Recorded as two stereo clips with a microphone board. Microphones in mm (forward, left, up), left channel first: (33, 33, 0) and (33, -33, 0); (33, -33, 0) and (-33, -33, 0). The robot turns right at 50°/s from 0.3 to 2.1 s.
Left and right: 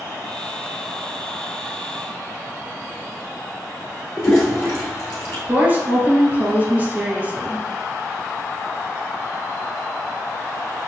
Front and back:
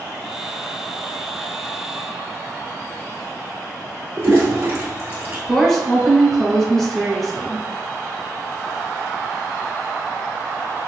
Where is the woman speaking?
80° right, 1.2 m.